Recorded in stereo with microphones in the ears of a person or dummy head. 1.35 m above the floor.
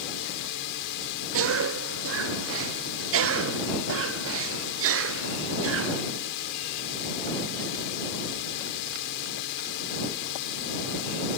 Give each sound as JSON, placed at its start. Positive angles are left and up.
{"t": 0.0, "sound": "a drone", "side_deg": 65}
{"t": 1.3, "sound": "a cough", "side_deg": -65}